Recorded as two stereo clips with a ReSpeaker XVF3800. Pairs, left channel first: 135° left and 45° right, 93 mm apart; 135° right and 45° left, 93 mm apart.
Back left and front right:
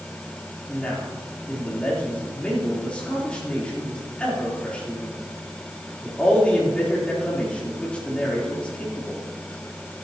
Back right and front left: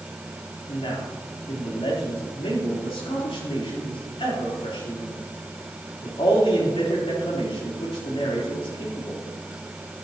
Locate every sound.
0.7 s a man speaking: 145° right, 3.5 m